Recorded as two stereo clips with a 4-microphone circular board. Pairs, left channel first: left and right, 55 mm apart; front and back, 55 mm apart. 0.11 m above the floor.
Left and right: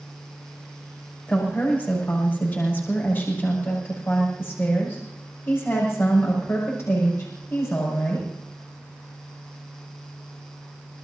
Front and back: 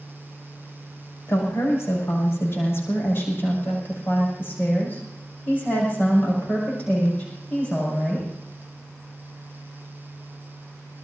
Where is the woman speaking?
35° left, 7 m; by 8.3 s 65° left, 7 m.